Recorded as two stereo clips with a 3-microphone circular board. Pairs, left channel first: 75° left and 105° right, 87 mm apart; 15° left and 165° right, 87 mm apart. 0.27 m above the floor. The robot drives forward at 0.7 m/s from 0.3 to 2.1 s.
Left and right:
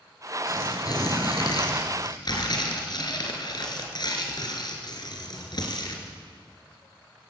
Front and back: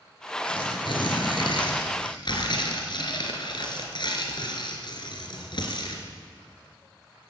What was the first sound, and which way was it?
Tearing paper, 30° left.